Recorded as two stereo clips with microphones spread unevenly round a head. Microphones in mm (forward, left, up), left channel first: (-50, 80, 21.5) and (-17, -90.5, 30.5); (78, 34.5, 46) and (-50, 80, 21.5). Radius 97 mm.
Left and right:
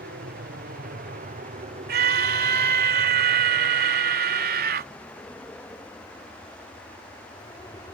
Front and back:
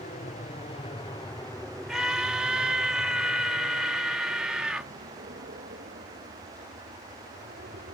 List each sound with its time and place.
0.0 s an aircraft: 55° right; by 7.9 s 170° left
1.9 s a scream: 110° right